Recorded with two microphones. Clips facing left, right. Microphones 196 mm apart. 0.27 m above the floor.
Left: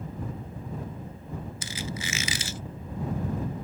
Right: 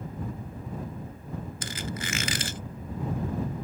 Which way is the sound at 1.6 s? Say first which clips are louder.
Right 1 dB; 60° right (ahead or behind).